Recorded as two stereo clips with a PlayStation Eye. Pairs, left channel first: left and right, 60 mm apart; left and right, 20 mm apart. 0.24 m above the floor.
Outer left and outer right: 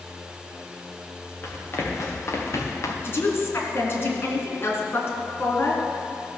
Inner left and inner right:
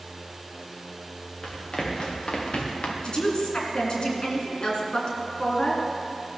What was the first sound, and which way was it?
Running footsteps, 40° left (ahead or behind).